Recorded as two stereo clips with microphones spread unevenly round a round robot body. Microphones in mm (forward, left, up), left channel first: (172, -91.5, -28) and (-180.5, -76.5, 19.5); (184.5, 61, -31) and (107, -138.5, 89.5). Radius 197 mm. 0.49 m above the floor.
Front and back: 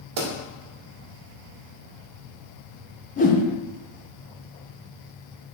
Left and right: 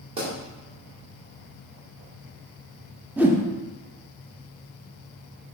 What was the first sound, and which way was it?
A pop, 160° left.